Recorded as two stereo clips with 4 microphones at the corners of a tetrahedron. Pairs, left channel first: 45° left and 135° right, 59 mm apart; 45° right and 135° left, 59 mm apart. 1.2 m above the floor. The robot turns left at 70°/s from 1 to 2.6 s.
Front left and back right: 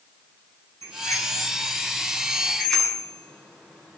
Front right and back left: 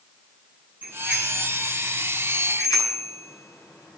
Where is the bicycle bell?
75° left, 9.5 m; by 4.0 s 35° right, 9.5 m.